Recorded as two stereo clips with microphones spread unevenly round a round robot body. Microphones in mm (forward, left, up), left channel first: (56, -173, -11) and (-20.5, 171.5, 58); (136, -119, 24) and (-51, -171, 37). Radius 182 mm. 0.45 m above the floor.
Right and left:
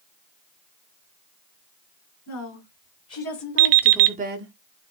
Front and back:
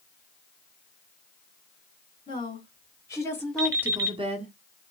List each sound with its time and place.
2.3 s a woman speaking: 50° right, 2.5 m; by 4.5 s 150° left, 1.1 m
3.6 s an alarm clock: 115° left, 0.6 m